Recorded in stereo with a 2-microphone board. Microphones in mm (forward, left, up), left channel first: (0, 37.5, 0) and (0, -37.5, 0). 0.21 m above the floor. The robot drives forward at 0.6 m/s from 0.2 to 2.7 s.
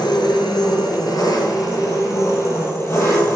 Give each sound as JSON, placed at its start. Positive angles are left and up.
{"t": 0.0, "sound": "an engine running", "side_deg": 75, "distance_m": 1.2}